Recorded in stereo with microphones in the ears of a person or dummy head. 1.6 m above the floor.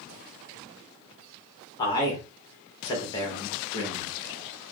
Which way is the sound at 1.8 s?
25° left (ahead or behind).